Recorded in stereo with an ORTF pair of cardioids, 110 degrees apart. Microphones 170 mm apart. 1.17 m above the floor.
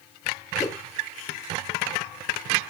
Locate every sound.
0.6 s a whoosh: 20° left, 1.9 m